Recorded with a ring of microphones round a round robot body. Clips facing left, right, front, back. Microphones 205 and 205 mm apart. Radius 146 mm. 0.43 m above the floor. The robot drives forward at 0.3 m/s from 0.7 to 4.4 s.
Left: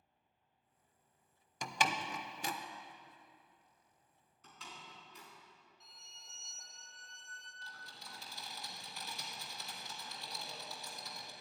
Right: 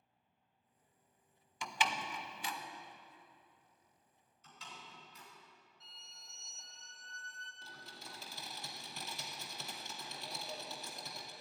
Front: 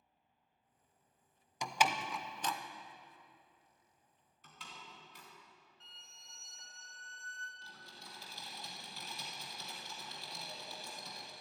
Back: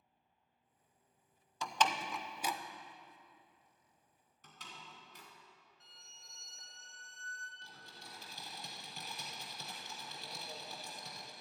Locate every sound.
1.6 s a door slam: 70° left, 0.7 m; by 2.6 s 105° left, 0.6 m
4.4 s a door slam: 140° left, 3.5 m
5.8 s a violin: straight behind, 1.8 m
7.6 s typing on a keyboard: 125° right, 1.9 m